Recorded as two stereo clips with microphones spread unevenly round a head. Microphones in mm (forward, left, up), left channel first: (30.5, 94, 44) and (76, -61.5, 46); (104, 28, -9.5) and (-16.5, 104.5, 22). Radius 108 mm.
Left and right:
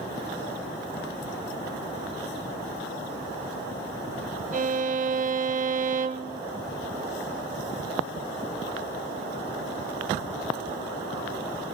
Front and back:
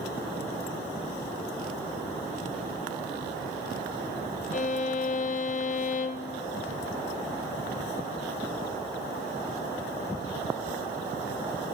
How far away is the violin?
About 0.6 m.